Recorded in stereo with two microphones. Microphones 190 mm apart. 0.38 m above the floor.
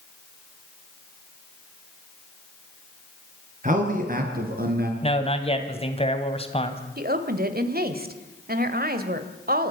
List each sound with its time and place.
3.6 s a man speaking: 40° right (ahead or behind), 5 m; by 4.9 s 55° right (ahead or behind), 4.5 m
5.0 s a man speaking: 30° left (ahead or behind), 2 m
7.0 s a woman speaking: 50° right (ahead or behind), 1.8 m